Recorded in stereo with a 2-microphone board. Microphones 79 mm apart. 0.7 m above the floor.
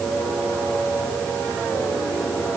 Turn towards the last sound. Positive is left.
No sound to turn to.